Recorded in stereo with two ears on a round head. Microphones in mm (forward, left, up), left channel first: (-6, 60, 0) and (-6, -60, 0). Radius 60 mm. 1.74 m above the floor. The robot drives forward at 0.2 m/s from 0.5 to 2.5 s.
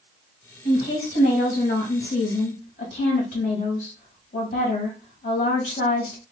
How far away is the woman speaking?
About 1.7 m.